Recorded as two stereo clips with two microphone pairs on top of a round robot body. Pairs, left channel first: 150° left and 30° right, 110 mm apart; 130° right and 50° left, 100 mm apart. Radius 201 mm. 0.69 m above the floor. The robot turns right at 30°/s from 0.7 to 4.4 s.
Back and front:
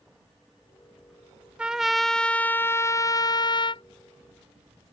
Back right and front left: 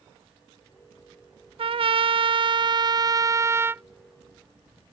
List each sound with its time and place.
1.6 s a trumpet: 50° left; by 3.8 s 115° left